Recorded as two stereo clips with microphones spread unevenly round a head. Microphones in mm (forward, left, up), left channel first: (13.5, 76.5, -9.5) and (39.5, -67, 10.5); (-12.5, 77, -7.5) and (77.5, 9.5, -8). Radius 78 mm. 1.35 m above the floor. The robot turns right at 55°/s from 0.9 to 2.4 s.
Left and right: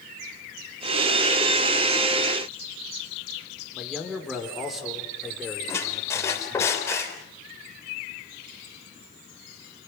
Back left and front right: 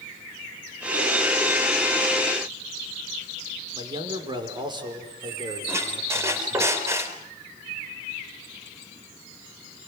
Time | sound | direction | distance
3.7 | a man speaking | 10° left | 5 m
5.7 | a squeak | 25° left | 4 m